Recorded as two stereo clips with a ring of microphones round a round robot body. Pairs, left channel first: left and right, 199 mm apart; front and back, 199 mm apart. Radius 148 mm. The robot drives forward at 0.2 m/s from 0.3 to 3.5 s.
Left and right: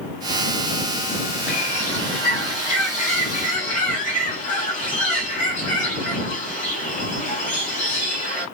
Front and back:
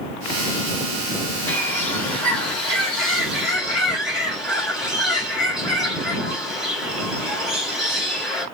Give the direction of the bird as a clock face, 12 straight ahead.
10 o'clock.